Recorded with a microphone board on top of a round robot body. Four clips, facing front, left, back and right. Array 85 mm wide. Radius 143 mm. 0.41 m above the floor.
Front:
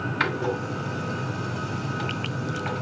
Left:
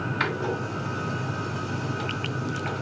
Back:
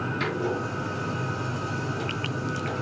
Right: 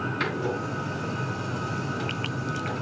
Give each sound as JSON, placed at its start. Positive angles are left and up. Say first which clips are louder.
{"t": 0.2, "sound": "a door slam", "louder": "left 2 dB, front 3 dB", "azimuth_deg": 25, "distance_m": 3.5}